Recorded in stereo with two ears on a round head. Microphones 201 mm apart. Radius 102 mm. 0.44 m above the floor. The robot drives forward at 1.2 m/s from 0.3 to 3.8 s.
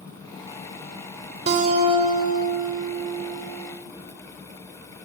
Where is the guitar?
30° right (ahead or behind), 2 m; by 3.4 s 15° right (ahead or behind), 4 m.